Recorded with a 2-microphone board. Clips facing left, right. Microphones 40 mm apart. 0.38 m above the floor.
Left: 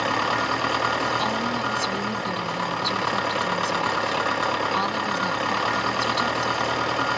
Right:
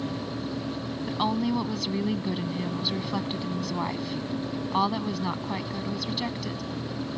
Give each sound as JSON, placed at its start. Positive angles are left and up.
{"t": 0.0, "sound": "an engine running", "side_deg": 80}
{"t": 1.1, "sound": "a woman speaking", "side_deg": -10}